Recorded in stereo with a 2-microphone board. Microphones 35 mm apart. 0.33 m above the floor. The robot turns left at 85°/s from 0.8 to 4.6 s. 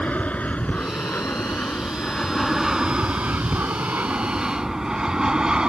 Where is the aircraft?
45° left (ahead or behind); by 5.7 s 25° right (ahead or behind).